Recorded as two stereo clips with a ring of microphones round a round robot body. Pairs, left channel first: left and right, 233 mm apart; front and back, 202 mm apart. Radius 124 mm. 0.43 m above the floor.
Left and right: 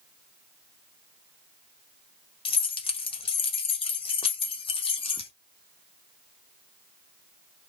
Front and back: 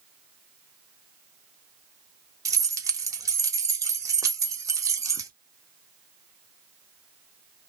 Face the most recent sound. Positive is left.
turn(degrees=125)